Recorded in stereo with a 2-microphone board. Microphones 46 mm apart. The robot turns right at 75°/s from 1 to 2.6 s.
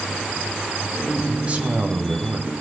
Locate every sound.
1.3 s a man speaking: 160° right, 2 m; by 2.5 s 65° right, 2 m